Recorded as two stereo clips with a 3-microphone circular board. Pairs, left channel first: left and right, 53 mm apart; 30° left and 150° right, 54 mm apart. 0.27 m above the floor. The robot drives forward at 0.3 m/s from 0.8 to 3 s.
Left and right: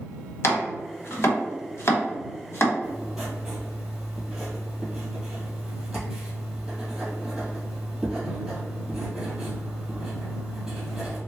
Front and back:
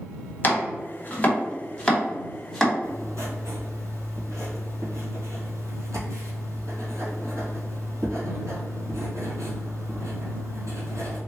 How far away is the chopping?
About 1.0 m.